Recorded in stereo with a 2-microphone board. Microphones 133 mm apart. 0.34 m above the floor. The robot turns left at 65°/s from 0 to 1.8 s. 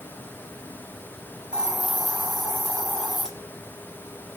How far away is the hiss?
About 1.3 m.